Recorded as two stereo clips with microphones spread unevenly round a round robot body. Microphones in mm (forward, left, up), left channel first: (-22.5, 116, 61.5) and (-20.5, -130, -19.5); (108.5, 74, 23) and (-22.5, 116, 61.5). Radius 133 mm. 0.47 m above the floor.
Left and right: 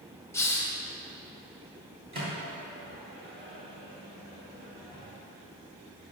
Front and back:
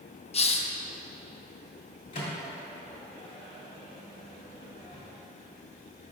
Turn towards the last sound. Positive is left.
turn(degrees=-25)